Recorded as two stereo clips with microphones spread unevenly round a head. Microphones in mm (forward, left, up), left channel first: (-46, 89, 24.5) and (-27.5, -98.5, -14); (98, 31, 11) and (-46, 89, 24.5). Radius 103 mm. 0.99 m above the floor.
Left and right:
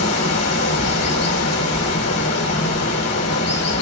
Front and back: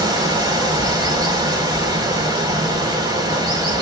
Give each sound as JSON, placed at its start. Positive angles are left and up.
{"t": 0.0, "sound": "running water", "azimuth_deg": 90, "distance_m": 3.5}